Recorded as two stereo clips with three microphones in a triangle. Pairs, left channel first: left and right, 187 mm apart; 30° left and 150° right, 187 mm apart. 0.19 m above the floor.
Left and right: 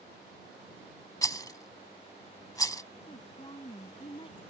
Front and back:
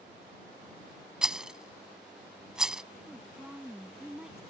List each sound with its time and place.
1.2 s a rattle: 130° left
3.1 s a woman speaking: 125° left